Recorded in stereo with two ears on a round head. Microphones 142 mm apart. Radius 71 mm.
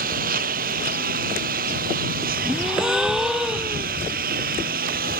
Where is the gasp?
5° right (ahead or behind).